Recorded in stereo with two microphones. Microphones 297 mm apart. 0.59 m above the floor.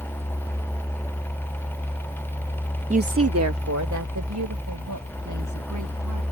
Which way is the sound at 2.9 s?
20° right (ahead or behind).